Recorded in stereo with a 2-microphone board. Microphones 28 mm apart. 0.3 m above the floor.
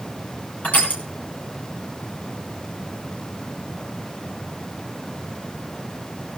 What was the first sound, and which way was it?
Crushing, 75° left (ahead or behind).